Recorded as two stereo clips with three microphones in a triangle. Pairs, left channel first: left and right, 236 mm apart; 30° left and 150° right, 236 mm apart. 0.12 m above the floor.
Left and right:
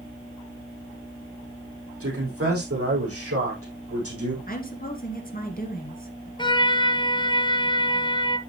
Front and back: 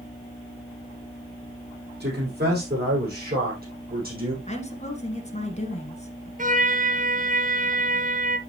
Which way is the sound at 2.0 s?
105° right.